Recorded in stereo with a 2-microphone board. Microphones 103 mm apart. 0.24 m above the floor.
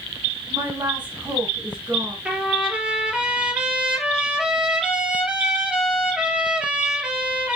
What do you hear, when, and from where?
0.5 s a woman speaking: 20° right (ahead or behind), 2.5 m
2.2 s a trumpet: 10° right (ahead or behind), 2 m